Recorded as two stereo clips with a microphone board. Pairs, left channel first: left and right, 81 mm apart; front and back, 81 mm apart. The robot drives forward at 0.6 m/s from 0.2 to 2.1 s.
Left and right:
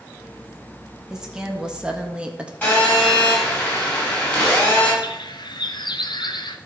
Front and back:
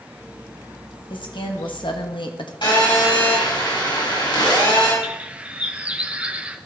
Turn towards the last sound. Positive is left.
turn(degrees=110)